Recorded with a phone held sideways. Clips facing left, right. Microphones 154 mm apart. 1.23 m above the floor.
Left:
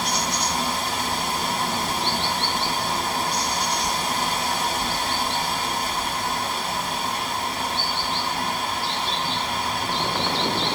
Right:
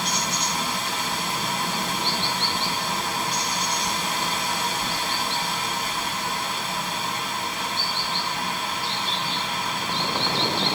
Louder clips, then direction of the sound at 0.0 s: Left 2 dB; 35° left (ahead or behind).